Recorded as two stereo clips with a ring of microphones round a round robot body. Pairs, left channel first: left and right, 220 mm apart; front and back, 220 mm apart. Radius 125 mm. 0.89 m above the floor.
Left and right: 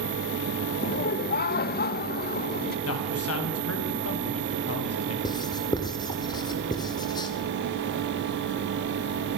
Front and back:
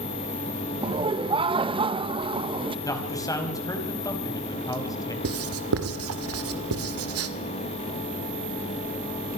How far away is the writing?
About 2 m.